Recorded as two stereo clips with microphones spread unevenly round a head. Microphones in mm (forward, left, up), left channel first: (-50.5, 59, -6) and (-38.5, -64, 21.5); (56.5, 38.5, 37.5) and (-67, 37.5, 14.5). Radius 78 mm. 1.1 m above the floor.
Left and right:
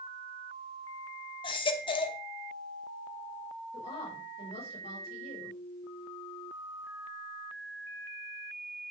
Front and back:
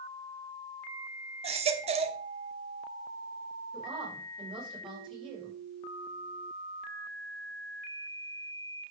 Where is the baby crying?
145° left, 1.0 m.